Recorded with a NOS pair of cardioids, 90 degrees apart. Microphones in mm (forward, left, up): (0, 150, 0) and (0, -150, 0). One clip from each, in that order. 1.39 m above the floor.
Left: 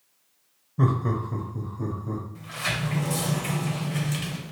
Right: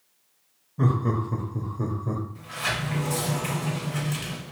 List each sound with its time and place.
0.8 s laughter: 15° left, 0.7 m; by 2.2 s 40° right, 1.0 m
2.4 s a sliding door: 5° left, 0.7 m